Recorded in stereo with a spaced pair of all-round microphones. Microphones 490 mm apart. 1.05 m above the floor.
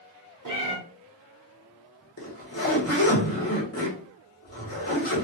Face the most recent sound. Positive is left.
turn(degrees=30)  # may be behind; listen again after turning